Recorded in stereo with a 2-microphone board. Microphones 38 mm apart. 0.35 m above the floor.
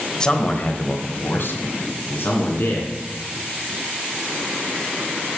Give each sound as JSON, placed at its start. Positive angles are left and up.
{"t": 0.2, "sound": "a man speaking", "side_deg": 15, "distance_m": 1.2}